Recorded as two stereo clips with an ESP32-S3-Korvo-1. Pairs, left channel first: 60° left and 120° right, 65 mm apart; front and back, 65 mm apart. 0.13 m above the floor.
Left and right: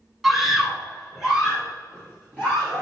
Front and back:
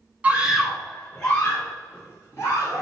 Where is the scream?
155° left, 1.2 m; by 2.8 s 45° right, 2.5 m.